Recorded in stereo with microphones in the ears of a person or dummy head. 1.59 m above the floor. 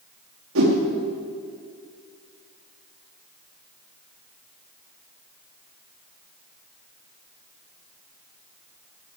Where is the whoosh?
85° right, 3.5 m.